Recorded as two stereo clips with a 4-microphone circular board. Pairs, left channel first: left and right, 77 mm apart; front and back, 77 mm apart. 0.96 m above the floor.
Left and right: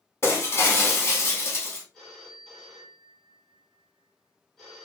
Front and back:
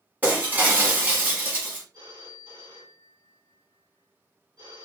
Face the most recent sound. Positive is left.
turn(degrees=175)